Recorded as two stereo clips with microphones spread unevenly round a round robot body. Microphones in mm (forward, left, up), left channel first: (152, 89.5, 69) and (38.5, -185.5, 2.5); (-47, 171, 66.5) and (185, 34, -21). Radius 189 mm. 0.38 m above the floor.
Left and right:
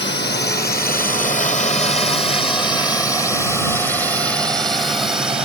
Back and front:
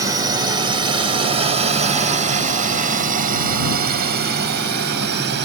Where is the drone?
15° left; by 5.5 s 35° right.